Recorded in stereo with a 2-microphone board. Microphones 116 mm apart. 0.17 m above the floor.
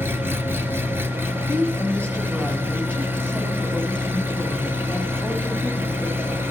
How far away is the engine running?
About 1.2 m.